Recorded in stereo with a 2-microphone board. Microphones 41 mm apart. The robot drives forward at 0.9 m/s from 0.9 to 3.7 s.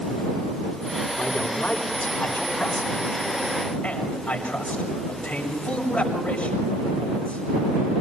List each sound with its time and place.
1.2 s a man speaking: 45° left (ahead or behind), 5 m; by 7.5 s 30° left (ahead or behind), 7 m